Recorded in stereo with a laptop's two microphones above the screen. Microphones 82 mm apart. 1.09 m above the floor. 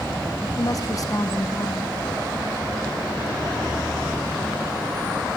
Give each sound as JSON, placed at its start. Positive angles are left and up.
{"t": 0.6, "sound": "a woman speaking", "side_deg": 45, "distance_m": 0.8}